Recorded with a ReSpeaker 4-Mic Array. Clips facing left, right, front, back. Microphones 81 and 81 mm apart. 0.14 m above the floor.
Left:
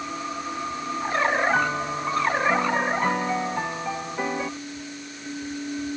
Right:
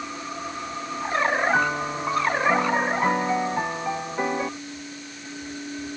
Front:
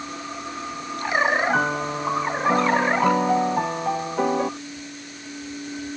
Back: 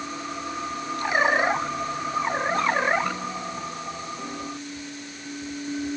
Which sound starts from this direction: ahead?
A piano, at 1.5 s.